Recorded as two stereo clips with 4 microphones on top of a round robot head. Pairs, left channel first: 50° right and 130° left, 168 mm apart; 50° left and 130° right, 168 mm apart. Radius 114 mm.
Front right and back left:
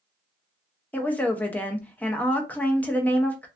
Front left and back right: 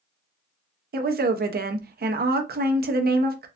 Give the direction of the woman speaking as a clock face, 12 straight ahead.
4 o'clock.